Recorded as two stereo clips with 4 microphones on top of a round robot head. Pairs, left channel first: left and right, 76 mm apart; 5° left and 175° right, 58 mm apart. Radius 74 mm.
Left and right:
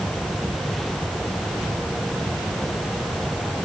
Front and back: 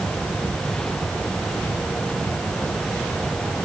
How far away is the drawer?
I don't hear a drawer.